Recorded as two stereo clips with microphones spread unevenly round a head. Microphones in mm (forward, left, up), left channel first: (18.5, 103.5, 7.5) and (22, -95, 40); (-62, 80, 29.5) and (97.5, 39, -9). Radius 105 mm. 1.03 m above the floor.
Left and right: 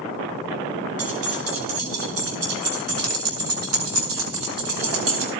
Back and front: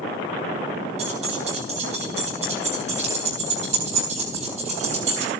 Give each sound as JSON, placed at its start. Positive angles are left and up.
{"t": 1.0, "sound": "keys jangling", "azimuth_deg": -75, "distance_m": 9.0}